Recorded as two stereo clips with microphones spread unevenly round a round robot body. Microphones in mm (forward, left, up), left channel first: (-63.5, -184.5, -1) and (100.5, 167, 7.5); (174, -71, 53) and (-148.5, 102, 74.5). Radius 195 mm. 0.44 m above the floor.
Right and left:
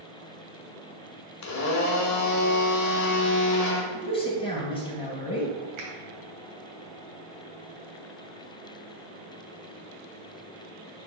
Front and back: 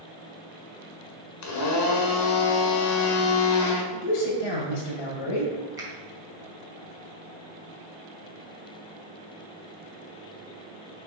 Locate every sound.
1.4 s a blender: 70° right, 1.2 m
3.9 s a man speaking: 40° right, 2 m
5.8 s a finger snap: 70° left, 2.5 m